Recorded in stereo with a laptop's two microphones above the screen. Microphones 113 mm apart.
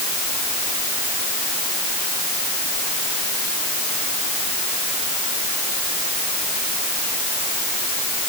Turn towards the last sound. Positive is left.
No sound to turn to.